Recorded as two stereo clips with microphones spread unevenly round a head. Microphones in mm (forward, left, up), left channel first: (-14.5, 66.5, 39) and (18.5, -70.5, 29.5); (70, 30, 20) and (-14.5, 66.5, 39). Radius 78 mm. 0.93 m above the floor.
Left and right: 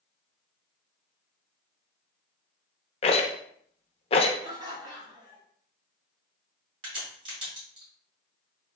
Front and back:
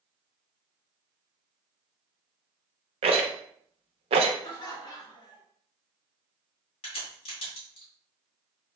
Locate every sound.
3.0 s a rattle: 155° left, 0.5 m
4.4 s laughter: 20° right, 1.5 m
6.8 s a crack: 20° right, 2.0 m